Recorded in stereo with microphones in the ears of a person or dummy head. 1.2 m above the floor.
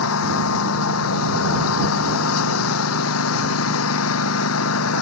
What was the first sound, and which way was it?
A lawn mower, 90° left.